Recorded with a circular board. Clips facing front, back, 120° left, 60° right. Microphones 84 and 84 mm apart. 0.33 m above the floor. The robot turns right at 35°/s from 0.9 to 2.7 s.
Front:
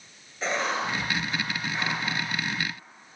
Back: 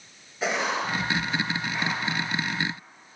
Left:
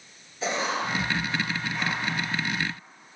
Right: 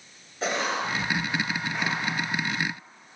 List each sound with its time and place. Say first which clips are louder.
0.4 s writing: back 1 dB, even; 100° right, 6.5 m; by 2.0 s 60° right, 6.5 m